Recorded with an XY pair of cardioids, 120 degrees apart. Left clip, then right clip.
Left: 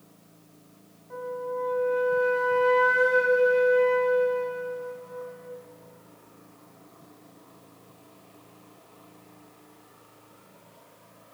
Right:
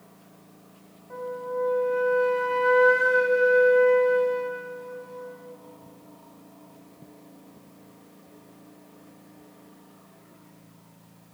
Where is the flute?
20° right, 3 m.